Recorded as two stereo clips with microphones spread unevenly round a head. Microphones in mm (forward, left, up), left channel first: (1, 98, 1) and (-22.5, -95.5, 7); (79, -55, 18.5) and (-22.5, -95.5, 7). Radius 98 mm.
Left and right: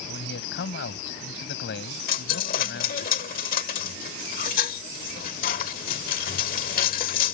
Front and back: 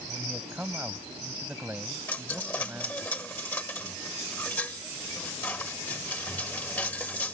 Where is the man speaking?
120° left.